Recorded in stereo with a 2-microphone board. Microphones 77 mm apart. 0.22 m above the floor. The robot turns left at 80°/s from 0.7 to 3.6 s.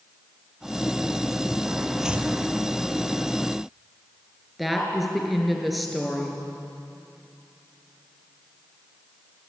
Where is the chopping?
5° right (ahead or behind), 1.5 m; by 2.3 s 25° right (ahead or behind), 1.5 m.